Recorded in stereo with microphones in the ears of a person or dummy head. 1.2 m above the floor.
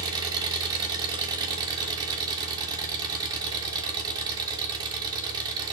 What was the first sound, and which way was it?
An engine running, 25° right (ahead or behind).